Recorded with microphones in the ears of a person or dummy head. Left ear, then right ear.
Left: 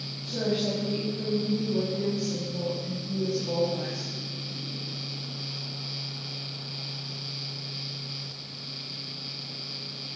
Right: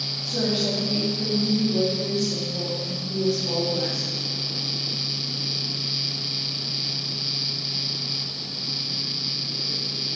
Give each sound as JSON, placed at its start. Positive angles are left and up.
{"t": 0.2, "sound": "a woman speaking", "side_deg": 5, "distance_m": 3.5}